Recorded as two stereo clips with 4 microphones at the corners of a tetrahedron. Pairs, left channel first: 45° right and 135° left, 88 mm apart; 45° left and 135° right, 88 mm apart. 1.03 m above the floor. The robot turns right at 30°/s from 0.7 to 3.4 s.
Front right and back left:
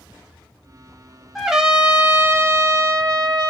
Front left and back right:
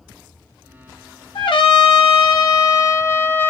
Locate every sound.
1.4 s a trumpet: 45° left, 1.0 m; by 3.5 s 110° left, 1.0 m